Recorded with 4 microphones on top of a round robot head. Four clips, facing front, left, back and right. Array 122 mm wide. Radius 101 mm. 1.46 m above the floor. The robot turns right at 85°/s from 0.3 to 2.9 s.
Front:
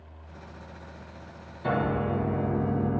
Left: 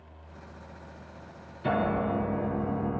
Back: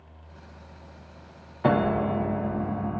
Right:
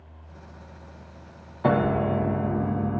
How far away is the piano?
About 1.2 m.